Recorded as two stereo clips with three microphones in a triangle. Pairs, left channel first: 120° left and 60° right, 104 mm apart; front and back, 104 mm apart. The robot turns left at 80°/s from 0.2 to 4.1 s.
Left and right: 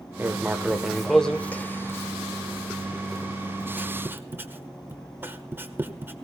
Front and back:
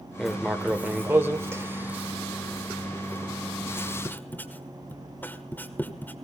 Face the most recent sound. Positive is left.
turn(degrees=-35)